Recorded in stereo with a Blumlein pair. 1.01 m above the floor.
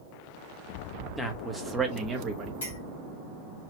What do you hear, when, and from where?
1.2 s a man speaking: 5° left, 1.4 m; by 2.5 s 25° right, 1.6 m
2.6 s a clink: 65° left, 2.5 m